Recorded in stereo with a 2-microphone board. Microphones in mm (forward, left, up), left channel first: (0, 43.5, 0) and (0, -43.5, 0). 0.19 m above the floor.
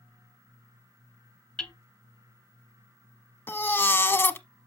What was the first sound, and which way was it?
Hammering, 10° left (ahead or behind).